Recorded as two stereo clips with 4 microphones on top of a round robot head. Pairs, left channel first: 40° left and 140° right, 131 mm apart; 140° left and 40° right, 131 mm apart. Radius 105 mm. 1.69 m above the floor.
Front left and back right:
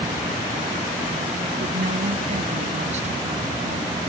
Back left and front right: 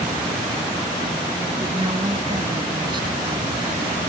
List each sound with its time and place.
1.6 s a woman speaking: 105° right; by 4.0 s 95° right